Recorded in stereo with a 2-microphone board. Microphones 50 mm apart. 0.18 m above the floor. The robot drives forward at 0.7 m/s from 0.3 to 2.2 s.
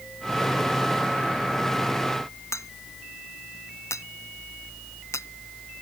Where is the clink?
80° left.